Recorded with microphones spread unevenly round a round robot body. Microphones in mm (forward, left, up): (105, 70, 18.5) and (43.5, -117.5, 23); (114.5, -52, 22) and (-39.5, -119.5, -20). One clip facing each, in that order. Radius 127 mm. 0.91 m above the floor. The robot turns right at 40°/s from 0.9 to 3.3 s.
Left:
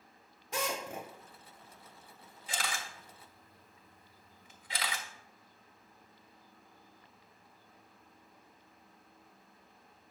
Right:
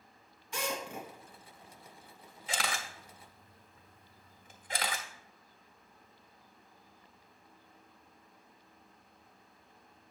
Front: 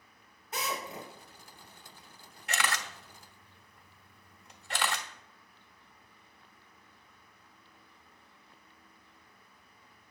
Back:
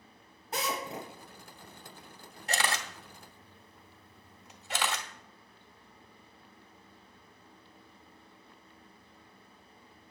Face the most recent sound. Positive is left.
turn(degrees=-65)